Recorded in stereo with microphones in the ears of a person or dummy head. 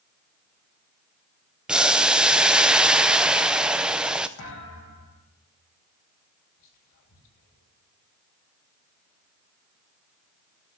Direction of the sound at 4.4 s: 75° left (ahead or behind).